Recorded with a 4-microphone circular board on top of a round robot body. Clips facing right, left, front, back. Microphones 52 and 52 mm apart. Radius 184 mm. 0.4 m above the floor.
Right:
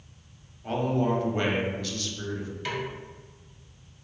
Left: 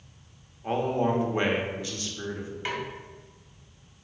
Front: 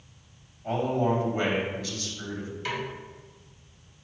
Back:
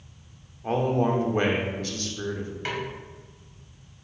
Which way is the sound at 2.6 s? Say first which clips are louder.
Even, back 1 dB; 150° left.